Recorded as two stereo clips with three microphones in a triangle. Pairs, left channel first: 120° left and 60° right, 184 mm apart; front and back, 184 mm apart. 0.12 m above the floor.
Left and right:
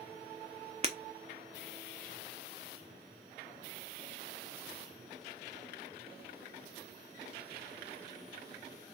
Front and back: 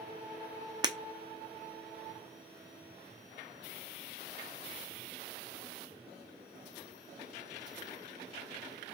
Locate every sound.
0.8 s breaking glass: 110° right, 0.6 m